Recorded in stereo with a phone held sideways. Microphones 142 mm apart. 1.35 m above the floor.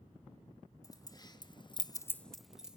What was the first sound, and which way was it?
Keys jangling, 25° left (ahead or behind).